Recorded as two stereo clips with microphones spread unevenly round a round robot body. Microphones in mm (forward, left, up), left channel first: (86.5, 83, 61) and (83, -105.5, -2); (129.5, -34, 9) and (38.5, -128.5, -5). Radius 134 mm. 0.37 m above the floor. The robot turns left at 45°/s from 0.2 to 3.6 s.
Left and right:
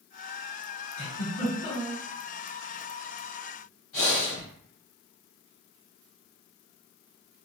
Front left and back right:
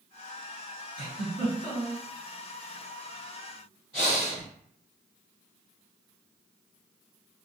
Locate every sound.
1.0 s a giggle: 160° left, 2.0 m; by 2.0 s 115° left, 2.0 m
3.9 s breathing: 115° left, 1.8 m